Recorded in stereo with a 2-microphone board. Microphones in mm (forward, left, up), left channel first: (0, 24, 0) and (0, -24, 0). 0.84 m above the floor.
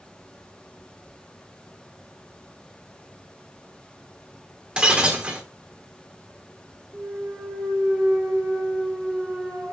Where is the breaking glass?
20° right (ahead or behind), 0.9 m.